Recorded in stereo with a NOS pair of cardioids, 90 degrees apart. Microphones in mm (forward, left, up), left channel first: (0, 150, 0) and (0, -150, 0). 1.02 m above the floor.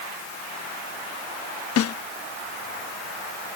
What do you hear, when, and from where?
1.8 s a snare drum: 55° left